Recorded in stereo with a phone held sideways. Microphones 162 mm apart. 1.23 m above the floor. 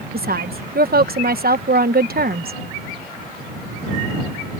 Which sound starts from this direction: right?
A woman speaking, at 0.1 s.